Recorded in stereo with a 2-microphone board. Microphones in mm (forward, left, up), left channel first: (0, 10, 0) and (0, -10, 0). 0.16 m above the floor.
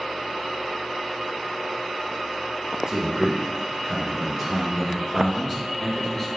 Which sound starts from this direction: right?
A man speaking, at 2.9 s.